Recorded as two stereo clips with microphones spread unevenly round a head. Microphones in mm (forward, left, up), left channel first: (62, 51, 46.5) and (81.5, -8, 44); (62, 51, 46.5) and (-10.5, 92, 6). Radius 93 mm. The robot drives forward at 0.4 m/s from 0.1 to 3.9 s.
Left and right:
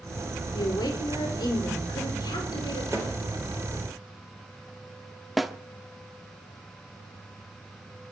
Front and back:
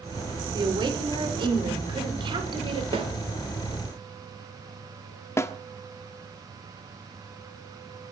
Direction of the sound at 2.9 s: Straight behind.